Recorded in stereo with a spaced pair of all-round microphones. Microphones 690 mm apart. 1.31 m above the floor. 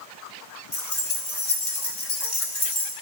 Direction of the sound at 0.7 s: 70° left (ahead or behind).